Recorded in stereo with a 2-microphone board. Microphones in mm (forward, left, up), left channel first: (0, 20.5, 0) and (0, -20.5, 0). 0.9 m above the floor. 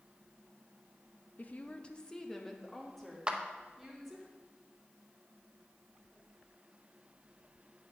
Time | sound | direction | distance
1.4 | a woman speaking | 40° left (ahead or behind) | 0.5 m
3.3 | a clap | 25° right (ahead or behind) | 0.7 m